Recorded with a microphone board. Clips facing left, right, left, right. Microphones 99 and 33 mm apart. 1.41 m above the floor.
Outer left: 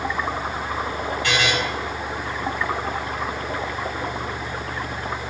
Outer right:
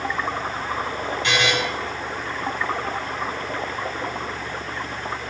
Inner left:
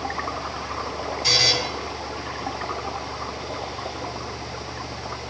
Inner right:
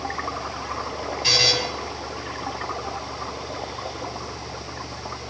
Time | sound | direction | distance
1.2 | a buzzer | 25° right (ahead or behind) | 5 m